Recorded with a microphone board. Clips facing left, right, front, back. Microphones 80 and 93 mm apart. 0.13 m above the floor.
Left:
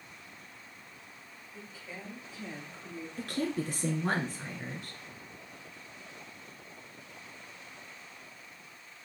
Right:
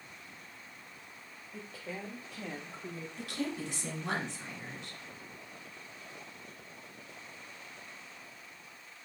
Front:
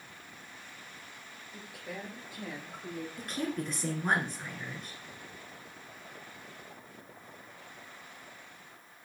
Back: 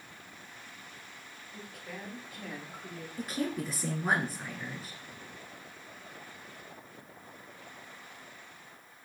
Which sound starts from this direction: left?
A woman speaking, at 3.2 s.